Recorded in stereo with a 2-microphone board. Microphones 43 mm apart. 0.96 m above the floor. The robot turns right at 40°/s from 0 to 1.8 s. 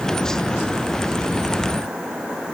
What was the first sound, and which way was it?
Only background noise.